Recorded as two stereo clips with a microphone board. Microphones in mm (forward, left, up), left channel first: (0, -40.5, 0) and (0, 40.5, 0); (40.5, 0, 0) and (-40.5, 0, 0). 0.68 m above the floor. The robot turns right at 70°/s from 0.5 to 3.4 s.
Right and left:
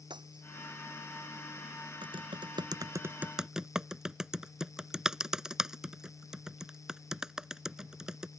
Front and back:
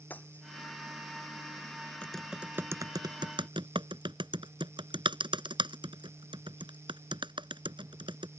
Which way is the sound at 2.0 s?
75° left.